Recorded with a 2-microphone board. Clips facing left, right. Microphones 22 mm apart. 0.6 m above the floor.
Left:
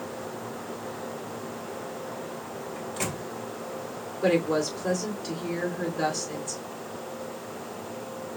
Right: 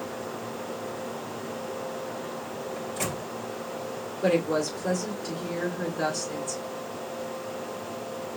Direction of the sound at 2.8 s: 15° left (ahead or behind).